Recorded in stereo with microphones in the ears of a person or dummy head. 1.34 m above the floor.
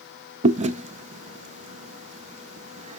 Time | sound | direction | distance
0.4 | chewing | 35° right (ahead or behind) | 0.6 m